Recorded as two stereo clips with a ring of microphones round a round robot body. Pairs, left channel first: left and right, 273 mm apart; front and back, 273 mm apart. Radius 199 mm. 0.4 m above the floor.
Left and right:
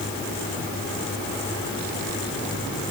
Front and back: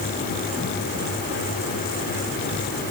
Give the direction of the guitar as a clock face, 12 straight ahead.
No guitar in this recording.